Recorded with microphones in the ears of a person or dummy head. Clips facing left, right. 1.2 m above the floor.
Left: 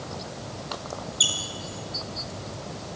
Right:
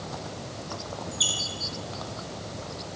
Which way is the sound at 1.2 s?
25° left (ahead or behind).